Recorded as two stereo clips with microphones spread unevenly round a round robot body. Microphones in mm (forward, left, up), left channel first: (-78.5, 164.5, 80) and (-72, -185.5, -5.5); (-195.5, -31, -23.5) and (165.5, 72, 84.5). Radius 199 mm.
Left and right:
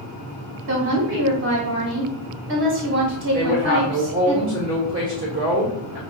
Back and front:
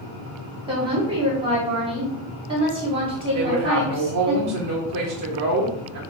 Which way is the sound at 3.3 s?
30° right.